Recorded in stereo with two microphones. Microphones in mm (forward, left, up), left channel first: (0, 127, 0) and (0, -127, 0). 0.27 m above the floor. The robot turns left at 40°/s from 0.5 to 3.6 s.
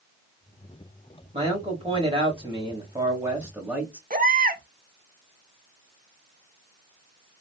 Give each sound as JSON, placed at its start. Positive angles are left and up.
{"t": 1.3, "sound": "a man speaking", "side_deg": -20, "distance_m": 0.9}
{"t": 4.1, "sound": "a baby crying", "side_deg": -35, "distance_m": 0.8}